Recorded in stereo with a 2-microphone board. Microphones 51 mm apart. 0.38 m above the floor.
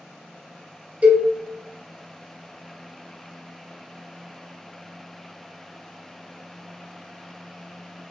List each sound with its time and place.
1.0 s a cowbell: 30° right (ahead or behind), 0.8 m